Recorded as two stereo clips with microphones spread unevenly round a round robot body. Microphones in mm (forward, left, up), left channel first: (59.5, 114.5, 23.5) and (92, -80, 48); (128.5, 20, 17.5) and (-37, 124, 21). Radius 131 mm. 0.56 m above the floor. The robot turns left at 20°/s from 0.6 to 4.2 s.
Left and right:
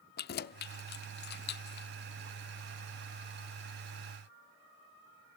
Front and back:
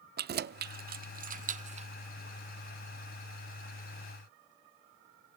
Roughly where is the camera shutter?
No camera shutter in this recording.